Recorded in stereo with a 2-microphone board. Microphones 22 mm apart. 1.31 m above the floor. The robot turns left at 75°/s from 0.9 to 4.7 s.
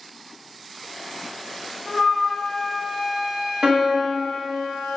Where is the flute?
30° left (ahead or behind), 0.6 m; by 4.1 s 30° right (ahead or behind), 0.6 m.